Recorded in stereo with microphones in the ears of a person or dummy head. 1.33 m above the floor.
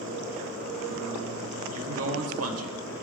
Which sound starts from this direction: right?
A man speaking, at 1.7 s.